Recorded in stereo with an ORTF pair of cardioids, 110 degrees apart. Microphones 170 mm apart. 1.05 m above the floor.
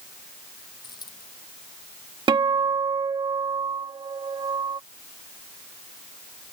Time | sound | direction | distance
0.8 | a dropped coin | 25° left | ?
2.3 | a guitar | 30° right | ?